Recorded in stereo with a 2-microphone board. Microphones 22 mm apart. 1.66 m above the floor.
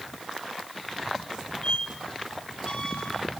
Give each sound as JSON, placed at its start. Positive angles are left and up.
{"t": 1.6, "sound": "a squeak", "side_deg": 45, "distance_m": 3.5}